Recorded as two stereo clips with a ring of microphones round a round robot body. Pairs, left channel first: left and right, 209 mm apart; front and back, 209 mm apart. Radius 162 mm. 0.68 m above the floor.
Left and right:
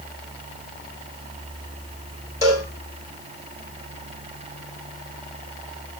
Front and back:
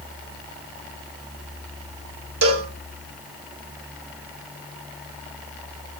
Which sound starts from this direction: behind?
A cowbell, at 2.4 s.